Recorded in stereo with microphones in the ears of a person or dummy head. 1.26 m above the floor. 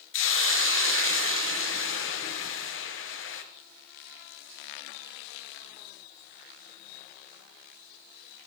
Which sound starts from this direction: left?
A hiss, at 0.1 s.